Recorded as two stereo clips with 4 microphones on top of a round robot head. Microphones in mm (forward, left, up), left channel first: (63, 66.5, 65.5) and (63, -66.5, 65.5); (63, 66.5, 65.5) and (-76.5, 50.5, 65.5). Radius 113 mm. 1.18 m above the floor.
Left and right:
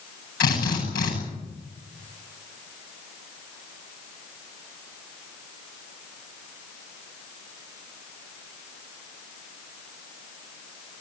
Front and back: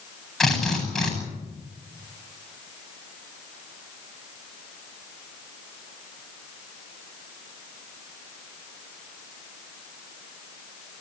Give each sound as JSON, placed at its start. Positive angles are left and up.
{"t": 0.4, "sound": "a drill", "azimuth_deg": 95, "distance_m": 9.5}